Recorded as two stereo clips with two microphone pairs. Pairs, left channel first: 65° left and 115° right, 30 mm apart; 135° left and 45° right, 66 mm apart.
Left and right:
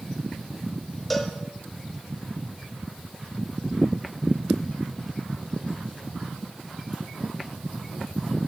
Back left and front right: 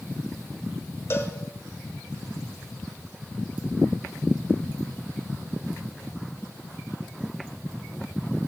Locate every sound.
1.1 s a cowbell: 150° left, 1.4 m